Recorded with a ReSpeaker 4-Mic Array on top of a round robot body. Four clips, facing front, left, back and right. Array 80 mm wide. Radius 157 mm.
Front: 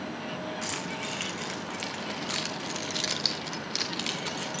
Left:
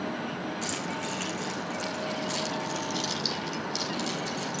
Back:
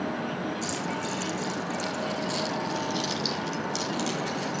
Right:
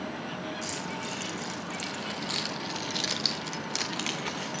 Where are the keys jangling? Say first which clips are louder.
Left 3 dB, back 4 dB; 10° left, 3.5 m; by 4.6 s 80° right, 2.5 m.